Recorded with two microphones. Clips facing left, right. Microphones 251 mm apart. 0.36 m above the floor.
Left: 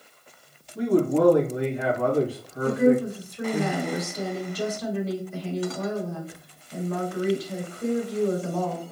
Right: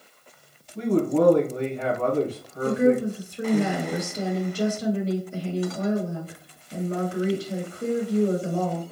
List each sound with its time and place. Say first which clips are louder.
0.8 s a man speaking: even; 10° left (ahead or behind), 2 m
2.6 s a woman speaking: even; 30° right (ahead or behind), 1.1 m